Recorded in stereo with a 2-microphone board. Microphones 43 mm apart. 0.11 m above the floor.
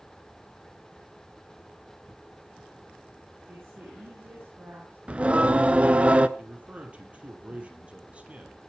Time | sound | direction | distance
3.5 | a woman speaking | 50° right (ahead or behind) | 8.5 m
5.1 | singing | 30° right (ahead or behind) | 0.7 m
6.4 | a man speaking | 30° right (ahead or behind) | 3 m